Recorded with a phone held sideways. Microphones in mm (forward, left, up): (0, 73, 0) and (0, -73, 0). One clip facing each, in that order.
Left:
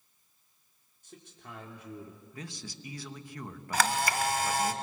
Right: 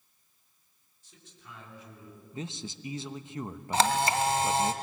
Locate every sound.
1.0 s a man speaking: 60° left (ahead or behind), 3.5 m; by 2.2 s 70° left (ahead or behind), 2.5 m
2.3 s a man speaking: 25° right (ahead or behind), 1.0 m
3.7 s a camera shutter: 25° right (ahead or behind), 1.4 m